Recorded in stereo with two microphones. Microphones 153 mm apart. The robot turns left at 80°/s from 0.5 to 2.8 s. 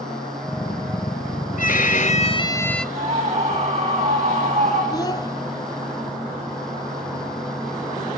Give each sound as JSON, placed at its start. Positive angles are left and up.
{"t": 1.6, "sound": "a violin", "azimuth_deg": 105, "distance_m": 0.6}
{"t": 3.0, "sound": "a scream", "side_deg": -45, "distance_m": 8.0}
{"t": 4.9, "sound": "a child speaking", "side_deg": 25, "distance_m": 0.9}